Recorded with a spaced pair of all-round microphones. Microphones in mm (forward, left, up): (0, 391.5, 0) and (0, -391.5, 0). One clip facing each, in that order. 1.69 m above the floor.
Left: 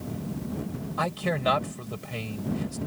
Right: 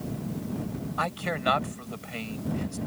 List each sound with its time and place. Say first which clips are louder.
1.0 s a man speaking: left 7 dB; 70° left (ahead or behind)